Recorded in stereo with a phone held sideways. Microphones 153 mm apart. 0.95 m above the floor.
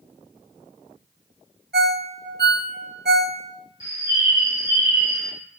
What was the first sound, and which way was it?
A ringtone, 85° right.